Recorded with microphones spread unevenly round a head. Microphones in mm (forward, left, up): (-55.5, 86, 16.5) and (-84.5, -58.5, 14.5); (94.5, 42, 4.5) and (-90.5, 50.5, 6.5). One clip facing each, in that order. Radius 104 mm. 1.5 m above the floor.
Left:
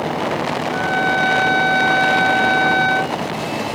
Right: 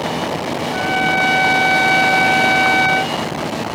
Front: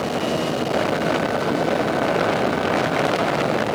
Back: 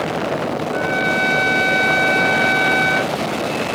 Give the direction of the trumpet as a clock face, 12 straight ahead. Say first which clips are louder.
Right 2 dB, even; 6 o'clock.